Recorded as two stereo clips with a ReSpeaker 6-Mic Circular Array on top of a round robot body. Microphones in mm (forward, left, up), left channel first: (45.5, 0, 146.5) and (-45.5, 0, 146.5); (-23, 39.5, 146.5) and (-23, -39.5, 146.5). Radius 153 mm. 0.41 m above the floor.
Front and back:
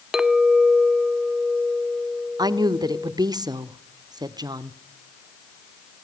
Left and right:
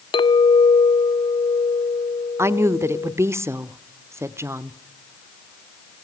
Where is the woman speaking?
145° right, 1.3 m.